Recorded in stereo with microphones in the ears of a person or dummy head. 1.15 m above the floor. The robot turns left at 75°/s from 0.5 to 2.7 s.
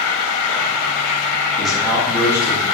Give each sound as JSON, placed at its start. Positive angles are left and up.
{"t": 0.0, "sound": "an insect", "azimuth_deg": 80, "distance_m": 0.8}
{"t": 1.6, "sound": "a man speaking", "azimuth_deg": 10, "distance_m": 0.8}